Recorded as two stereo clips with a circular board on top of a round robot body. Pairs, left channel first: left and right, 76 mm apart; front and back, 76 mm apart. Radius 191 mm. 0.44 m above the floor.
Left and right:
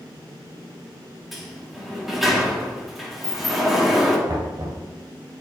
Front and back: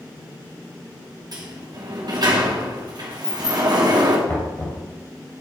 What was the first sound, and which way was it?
A sliding door, straight behind.